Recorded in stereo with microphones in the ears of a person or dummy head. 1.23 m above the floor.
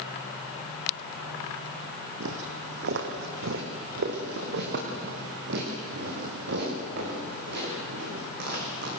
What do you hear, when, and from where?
2.2 s footsteps: 55° right (ahead or behind), 2 m; by 8.9 s 60° right (ahead or behind), 9.5 m